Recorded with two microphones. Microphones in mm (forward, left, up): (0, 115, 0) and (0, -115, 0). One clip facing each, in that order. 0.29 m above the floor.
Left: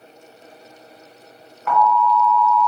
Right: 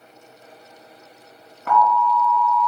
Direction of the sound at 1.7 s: 50° right (ahead or behind).